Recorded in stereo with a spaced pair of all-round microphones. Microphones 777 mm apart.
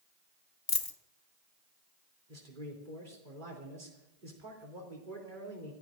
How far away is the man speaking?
About 3.5 m.